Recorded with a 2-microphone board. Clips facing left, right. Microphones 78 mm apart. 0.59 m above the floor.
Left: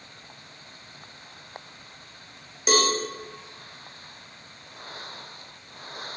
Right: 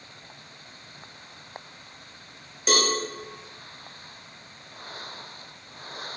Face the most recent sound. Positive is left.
turn(degrees=5)  # may be behind; listen again after turning